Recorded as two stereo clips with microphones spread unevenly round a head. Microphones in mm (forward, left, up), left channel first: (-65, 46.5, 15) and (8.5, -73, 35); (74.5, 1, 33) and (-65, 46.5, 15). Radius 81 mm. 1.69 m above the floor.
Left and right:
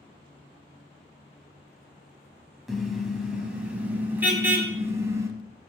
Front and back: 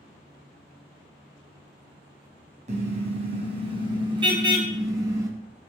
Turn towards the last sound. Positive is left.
turn(degrees=-125)